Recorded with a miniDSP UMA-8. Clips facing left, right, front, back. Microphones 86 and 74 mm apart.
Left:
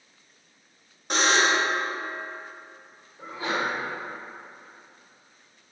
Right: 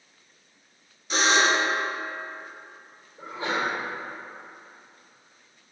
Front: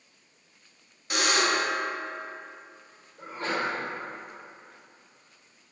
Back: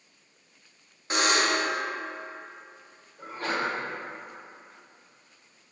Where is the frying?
I don't hear frying.